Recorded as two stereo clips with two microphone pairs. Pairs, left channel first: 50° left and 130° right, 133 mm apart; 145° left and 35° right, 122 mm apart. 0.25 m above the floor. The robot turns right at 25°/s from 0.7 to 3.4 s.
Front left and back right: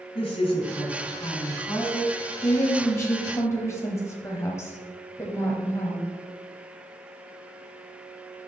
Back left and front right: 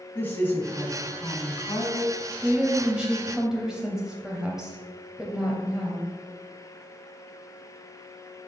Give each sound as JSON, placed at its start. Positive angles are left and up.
{"t": 0.1, "sound": "a woman speaking", "azimuth_deg": 75, "distance_m": 2.0}
{"t": 2.4, "sound": "a woman speaking", "azimuth_deg": 15, "distance_m": 0.9}